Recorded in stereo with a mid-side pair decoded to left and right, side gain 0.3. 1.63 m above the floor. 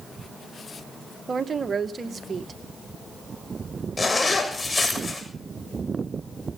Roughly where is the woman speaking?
Ahead right.